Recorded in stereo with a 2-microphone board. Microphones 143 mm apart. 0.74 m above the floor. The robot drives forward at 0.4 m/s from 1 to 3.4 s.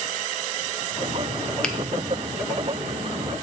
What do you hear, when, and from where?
1.6 s a finger snap: 5° left (ahead or behind), 0.6 m